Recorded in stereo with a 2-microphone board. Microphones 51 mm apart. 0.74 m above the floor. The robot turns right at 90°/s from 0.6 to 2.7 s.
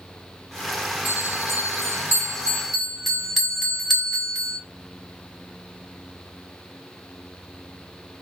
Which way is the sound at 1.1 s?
145° right.